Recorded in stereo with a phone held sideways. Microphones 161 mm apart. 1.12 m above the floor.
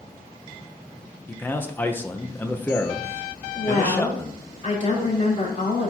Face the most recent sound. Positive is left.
turn(degrees=50)  # may be behind; listen again after turning